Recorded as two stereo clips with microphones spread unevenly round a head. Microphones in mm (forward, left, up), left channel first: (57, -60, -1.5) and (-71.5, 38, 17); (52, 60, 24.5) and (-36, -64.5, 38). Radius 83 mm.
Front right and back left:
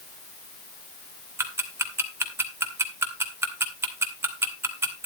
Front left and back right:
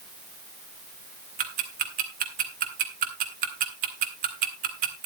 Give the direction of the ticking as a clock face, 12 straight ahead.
5 o'clock.